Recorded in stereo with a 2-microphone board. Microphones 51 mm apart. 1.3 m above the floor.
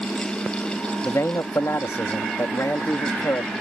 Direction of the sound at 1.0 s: 85° left.